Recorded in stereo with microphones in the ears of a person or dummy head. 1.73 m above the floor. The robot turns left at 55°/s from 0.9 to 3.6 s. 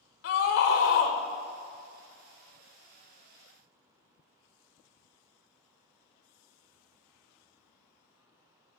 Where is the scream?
60° left (ahead or behind), 1.2 m.